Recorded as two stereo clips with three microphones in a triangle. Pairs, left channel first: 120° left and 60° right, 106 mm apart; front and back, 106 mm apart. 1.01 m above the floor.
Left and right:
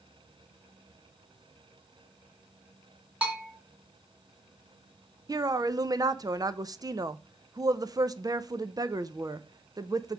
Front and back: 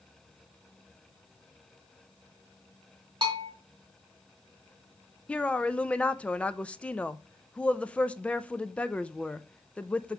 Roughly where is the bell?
Behind right.